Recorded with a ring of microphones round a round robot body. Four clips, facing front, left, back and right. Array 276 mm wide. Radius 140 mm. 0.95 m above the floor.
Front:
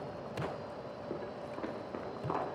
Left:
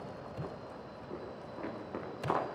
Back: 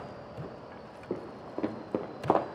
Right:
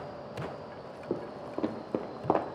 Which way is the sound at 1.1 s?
115° right.